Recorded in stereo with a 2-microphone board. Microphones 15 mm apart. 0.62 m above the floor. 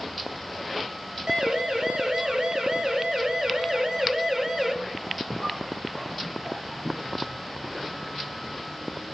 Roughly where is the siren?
Right.